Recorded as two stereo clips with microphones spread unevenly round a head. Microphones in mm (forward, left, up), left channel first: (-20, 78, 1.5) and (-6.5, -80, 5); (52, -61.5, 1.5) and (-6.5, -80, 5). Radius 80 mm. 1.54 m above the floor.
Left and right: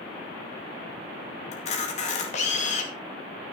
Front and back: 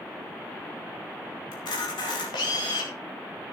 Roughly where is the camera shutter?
Ahead left.